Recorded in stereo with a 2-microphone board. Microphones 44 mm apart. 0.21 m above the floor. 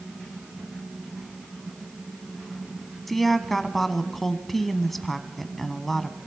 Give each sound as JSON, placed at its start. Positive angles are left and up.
{"t": 3.1, "sound": "a woman speaking", "side_deg": 5, "distance_m": 1.3}